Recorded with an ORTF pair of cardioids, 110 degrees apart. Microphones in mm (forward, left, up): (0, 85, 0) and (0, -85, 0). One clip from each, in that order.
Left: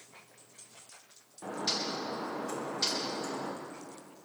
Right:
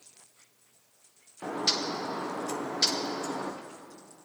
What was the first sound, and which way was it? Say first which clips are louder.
A bird: right 4 dB; 35° right.